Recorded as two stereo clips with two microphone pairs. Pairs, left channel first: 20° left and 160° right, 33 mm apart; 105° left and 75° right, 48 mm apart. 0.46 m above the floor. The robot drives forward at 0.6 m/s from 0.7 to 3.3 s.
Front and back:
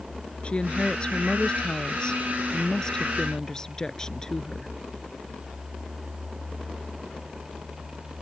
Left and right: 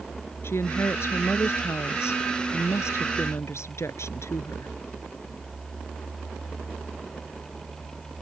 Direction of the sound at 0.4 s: 80° left.